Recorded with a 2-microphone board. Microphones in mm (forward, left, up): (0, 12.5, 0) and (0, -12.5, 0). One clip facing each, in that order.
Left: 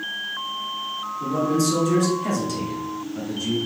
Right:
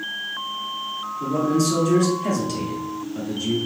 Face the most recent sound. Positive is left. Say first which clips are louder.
# right 1 dB
turn(degrees=-5)  # may be behind; listen again after turning